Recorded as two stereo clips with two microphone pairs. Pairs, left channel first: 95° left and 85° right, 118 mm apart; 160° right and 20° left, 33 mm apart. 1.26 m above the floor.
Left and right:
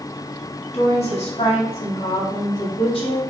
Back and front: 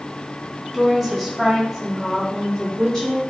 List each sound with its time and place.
0.7 s a woman speaking: 110° left, 3 m; by 3.2 s 130° left, 4 m